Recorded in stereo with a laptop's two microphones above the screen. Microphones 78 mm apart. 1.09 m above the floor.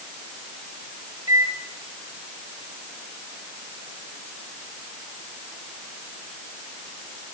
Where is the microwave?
55° right (ahead or behind), 4.5 m.